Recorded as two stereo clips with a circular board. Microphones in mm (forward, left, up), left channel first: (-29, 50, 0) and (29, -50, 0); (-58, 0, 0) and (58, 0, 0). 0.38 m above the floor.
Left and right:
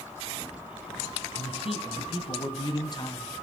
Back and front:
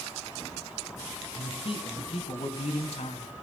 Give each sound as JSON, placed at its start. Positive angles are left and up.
{"t": 1.3, "sound": "a man speaking", "azimuth_deg": 145, "distance_m": 3.5}